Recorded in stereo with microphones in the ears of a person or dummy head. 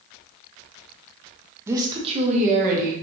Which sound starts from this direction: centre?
A woman speaking, at 1.7 s.